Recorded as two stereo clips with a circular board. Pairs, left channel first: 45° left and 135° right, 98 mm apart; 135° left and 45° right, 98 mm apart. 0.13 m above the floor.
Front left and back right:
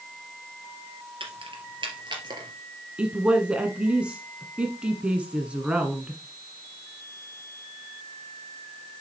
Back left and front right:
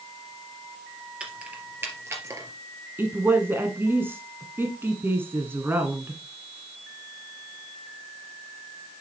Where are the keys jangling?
125° right, 2.5 m; by 2.5 s 100° right, 2.5 m.